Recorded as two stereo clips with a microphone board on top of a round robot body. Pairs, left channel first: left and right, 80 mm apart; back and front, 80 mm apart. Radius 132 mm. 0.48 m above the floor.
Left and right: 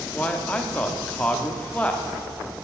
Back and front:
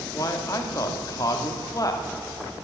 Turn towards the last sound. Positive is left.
turn(degrees=160)